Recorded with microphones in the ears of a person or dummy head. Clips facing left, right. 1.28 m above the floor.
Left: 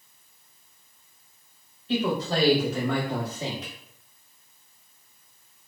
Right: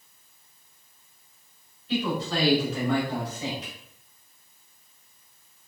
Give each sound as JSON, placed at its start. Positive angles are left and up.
{"t": 1.9, "sound": "a man speaking", "side_deg": 35, "distance_m": 1.2}